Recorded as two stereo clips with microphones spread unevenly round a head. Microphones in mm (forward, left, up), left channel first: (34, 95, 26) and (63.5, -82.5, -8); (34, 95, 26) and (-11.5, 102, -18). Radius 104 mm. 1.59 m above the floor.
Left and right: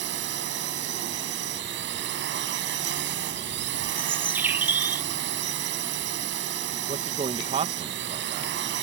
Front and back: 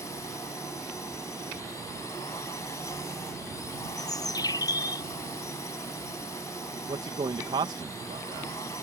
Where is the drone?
55° right.